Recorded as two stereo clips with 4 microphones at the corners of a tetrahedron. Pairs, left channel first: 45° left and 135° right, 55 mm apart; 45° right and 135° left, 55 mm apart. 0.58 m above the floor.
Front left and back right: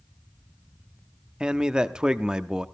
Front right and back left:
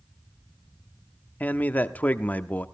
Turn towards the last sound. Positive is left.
turn(degrees=-70)